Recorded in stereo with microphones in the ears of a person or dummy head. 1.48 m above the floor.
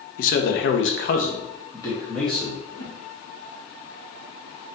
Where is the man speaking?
55° left (ahead or behind), 0.7 m; by 2.6 s 5° right (ahead or behind), 1.3 m.